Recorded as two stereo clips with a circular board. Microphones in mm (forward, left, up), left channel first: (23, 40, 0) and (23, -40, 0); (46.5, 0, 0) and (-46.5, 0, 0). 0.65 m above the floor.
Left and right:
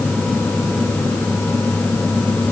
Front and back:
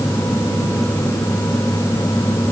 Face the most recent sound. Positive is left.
No sound to turn to.